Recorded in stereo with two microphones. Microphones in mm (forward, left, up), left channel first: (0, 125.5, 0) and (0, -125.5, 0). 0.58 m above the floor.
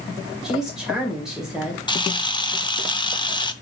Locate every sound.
0.4 s a woman speaking: centre (ahead or behind), 2 m
1.9 s a camera shutter: 20° left (ahead or behind), 0.6 m